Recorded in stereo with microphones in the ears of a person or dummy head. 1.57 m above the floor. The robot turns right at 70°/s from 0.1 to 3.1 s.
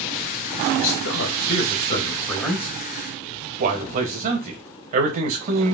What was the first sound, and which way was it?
A man speaking, 55° left.